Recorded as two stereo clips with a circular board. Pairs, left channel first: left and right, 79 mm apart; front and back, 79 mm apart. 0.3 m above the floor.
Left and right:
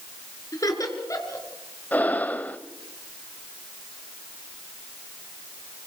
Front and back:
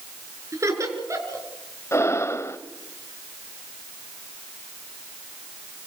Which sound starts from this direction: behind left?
Laughter, at 0.5 s.